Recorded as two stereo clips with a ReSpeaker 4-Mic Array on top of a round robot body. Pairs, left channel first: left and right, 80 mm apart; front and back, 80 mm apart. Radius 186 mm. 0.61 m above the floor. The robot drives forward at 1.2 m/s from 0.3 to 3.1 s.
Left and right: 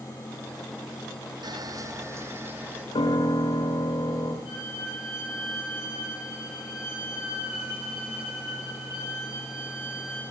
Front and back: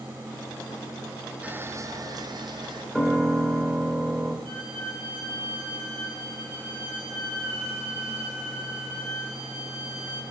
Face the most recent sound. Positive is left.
turn(degrees=-165)